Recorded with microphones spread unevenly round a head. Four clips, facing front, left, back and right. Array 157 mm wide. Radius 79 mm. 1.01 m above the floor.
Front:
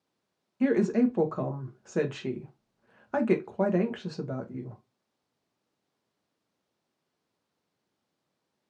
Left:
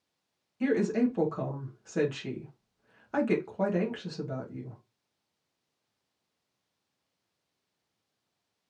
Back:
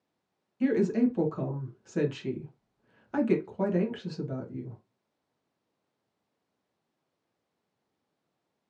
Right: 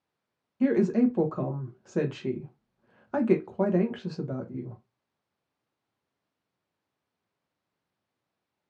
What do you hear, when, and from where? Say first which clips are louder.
0.6 s a woman speaking: right 4 dB, front 1 dB; 35° right, 1.0 m